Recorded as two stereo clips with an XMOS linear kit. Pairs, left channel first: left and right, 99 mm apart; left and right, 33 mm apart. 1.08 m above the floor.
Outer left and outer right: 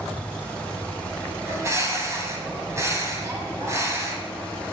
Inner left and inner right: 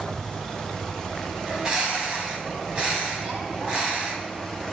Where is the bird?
30° right (ahead or behind), 3.5 m.